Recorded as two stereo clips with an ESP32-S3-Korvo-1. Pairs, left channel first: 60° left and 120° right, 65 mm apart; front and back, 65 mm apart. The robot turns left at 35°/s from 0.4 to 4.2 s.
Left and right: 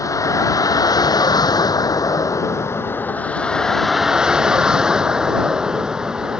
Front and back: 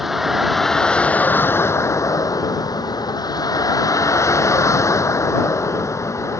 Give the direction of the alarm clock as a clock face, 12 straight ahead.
No alarm clock in this recording.